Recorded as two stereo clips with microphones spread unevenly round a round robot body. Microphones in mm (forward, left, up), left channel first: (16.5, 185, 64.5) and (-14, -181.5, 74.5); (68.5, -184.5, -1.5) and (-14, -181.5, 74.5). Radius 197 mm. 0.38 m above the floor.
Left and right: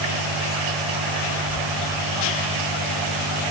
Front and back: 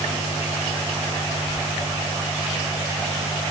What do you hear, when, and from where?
Only background noise.